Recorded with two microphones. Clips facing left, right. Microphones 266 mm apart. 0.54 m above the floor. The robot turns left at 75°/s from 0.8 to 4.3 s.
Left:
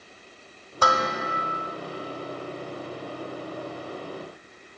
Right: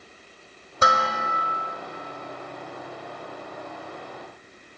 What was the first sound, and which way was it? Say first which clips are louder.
Dishes clattering: left 1 dB; 155° right.